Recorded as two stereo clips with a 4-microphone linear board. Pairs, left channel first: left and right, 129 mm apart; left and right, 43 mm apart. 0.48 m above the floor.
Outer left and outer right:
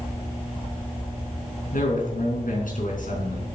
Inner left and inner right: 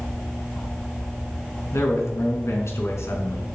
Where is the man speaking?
80° left, 4.5 m.